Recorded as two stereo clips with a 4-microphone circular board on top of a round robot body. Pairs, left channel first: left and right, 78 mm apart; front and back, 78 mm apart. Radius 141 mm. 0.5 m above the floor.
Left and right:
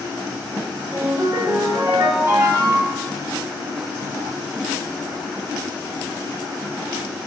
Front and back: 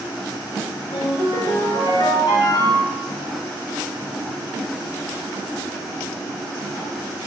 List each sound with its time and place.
0.9 s a ringtone: 35° right, 4 m